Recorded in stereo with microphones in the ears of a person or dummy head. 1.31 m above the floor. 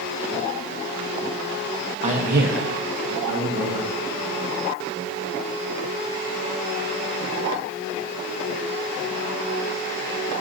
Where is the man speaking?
35° right (ahead or behind), 1.4 m; by 3.9 s 60° right (ahead or behind), 2.5 m.